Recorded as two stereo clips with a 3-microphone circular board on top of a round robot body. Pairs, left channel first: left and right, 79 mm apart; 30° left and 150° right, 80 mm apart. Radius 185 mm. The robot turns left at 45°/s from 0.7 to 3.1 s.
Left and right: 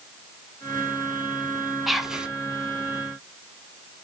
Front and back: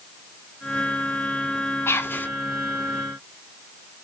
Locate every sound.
1.9 s whispering: straight ahead, 0.6 m; by 2.3 s 20° right, 0.6 m